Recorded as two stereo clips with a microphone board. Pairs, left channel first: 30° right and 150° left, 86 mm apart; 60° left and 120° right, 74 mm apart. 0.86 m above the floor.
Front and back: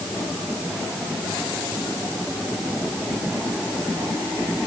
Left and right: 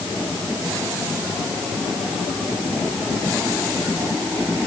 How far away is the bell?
I don't hear a bell.